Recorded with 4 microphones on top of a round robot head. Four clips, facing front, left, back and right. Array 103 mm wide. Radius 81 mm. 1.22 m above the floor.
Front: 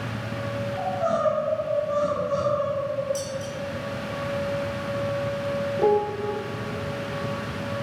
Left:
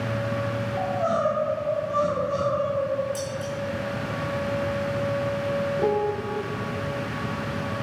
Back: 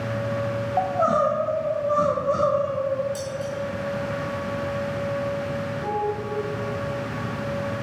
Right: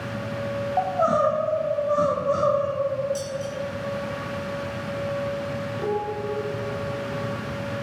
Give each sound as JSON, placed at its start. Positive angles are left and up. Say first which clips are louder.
{"t": 0.8, "sound": "crying", "louder": "right 4 dB, back 4 dB", "azimuth_deg": -140, "distance_m": 0.9}
{"t": 3.1, "sound": "dishes clattering", "louder": "right 1 dB, back 1 dB", "azimuth_deg": 115, "distance_m": 3.0}
{"t": 5.8, "sound": "a piano", "louder": "even, front 6 dB", "azimuth_deg": 20, "distance_m": 0.5}